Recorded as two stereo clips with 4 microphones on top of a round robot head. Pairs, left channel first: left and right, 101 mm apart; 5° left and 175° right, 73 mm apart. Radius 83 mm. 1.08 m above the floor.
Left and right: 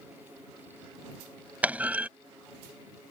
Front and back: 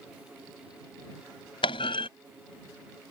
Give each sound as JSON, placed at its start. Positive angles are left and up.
{"t": 1.6, "sound": "a clunk", "azimuth_deg": -15}